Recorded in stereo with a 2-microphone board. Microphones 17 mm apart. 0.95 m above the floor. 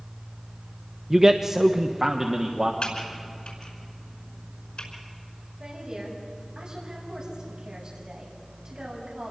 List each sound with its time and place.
1.1 s a man speaking: 20° right (ahead or behind), 0.6 m; by 2.7 s 30° right (ahead or behind), 1.7 m
2.8 s typing on a keyboard: 80° left, 5 m
5.6 s a woman speaking: 35° right (ahead or behind), 6.5 m